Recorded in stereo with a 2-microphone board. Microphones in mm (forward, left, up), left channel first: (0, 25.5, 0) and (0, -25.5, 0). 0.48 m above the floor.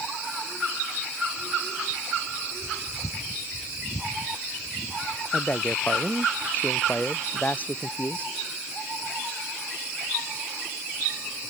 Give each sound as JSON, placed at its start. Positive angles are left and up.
{"t": 5.3, "sound": "a man speaking", "side_deg": 35}